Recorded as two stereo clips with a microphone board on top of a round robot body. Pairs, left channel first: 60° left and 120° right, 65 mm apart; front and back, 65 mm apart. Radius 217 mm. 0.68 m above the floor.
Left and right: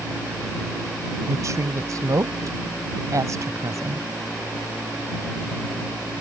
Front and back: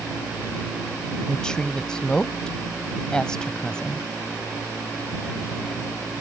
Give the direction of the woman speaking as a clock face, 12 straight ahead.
3 o'clock.